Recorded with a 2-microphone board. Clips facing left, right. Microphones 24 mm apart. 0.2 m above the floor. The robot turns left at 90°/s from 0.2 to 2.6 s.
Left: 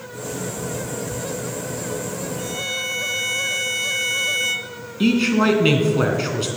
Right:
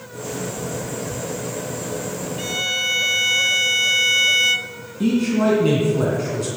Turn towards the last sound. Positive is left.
turn(degrees=55)  # may be behind; listen again after turning